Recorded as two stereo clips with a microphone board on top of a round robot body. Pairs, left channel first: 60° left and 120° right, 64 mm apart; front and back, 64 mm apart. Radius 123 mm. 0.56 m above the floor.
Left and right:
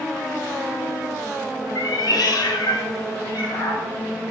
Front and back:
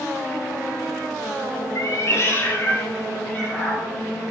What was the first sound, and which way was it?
A cat meowing, 40° left.